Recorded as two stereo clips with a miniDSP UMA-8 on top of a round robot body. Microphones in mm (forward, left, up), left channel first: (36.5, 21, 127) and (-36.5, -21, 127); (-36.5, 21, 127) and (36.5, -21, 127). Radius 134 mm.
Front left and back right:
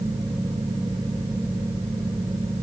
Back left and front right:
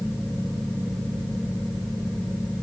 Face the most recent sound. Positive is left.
No sound to turn to.